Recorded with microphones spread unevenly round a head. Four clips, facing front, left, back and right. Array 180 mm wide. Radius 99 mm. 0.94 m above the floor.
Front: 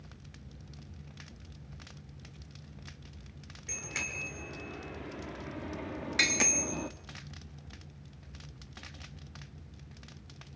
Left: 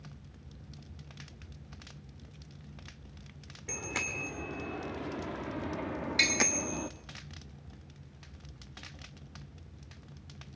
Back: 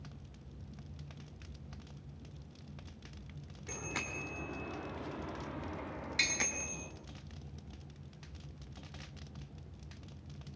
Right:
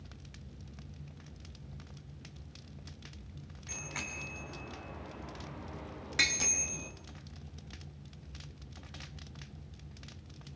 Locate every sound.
3.7 s a bicycle bell: 115° left, 2.5 m; by 6.9 s 40° left, 1.3 m
6.2 s tapping: 25° right, 2 m